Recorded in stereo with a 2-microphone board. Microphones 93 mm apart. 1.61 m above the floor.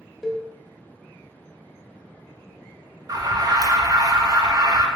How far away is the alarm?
About 0.5 m.